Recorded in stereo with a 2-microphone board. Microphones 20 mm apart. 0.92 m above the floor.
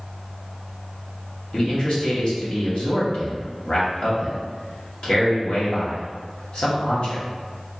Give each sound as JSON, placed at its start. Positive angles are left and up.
{"t": 1.5, "sound": "a man speaking", "side_deg": 60, "distance_m": 1.2}